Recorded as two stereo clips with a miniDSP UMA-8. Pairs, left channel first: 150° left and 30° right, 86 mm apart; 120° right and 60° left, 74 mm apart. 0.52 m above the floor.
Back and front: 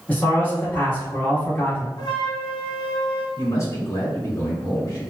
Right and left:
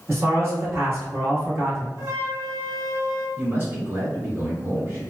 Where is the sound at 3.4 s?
110° left, 1.2 m.